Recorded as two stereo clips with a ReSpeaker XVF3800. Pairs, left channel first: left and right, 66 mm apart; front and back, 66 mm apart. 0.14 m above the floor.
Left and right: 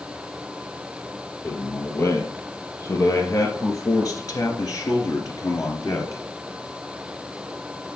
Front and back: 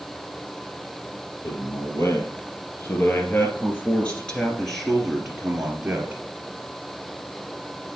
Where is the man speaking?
40° left, 3 m; by 6.2 s 115° left, 2 m.